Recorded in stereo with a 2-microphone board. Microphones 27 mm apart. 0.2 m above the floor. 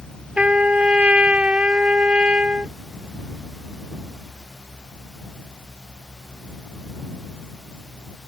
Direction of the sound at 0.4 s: 45° right (ahead or behind).